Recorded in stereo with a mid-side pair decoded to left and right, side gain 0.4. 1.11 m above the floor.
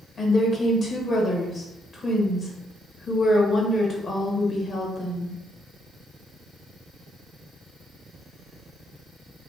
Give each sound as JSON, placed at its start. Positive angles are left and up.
{"t": 0.2, "sound": "a woman speaking", "azimuth_deg": 45, "distance_m": 1.2}